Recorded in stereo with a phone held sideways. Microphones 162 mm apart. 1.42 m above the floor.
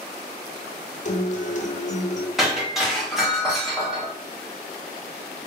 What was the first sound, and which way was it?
A guitar, 45° left (ahead or behind).